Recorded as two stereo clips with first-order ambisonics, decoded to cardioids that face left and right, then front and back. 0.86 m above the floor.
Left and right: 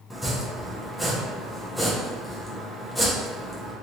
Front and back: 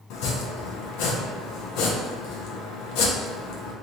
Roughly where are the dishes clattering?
No dishes clattering in this recording.